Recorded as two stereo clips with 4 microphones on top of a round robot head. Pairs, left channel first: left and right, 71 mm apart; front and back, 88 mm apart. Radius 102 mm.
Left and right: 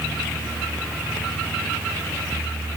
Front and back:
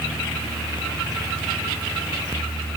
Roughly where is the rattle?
No rattle in this recording.